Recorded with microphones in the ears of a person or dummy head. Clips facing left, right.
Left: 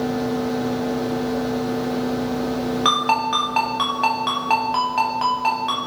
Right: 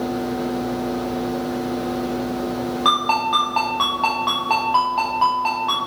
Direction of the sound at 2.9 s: 30° left (ahead or behind).